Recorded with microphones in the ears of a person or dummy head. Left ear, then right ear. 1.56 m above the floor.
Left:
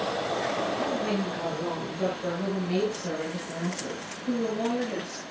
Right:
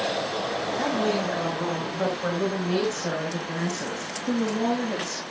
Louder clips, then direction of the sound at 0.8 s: Right 4 dB; 35° right (ahead or behind).